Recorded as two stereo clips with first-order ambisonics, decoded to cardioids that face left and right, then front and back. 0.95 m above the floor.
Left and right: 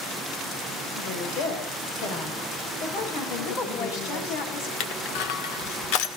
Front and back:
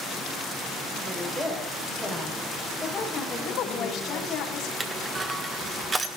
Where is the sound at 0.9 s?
105° left, 6 m; by 4.4 s 80° left, 9.5 m.